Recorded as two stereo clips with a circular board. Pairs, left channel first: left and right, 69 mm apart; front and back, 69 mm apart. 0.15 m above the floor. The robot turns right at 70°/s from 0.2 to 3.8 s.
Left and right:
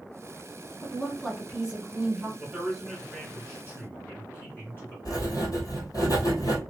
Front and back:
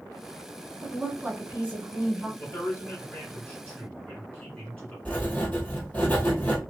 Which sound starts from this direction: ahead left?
Writing, at 5.0 s.